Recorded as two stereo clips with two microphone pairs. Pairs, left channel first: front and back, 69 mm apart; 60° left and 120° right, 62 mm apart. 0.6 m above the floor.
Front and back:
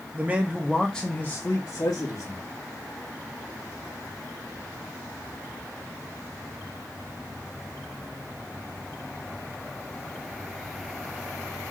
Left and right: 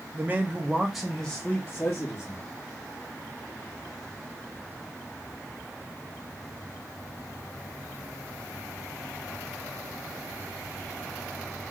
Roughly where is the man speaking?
Behind right.